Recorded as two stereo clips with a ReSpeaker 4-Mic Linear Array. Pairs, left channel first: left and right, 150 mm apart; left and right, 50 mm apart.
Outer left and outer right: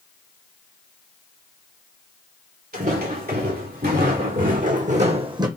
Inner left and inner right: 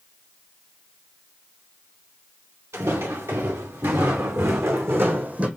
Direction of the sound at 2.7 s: 80° right.